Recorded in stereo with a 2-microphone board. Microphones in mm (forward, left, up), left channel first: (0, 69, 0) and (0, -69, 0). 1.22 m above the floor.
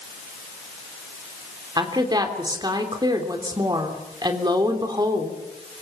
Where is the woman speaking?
30° right (ahead or behind), 3 m.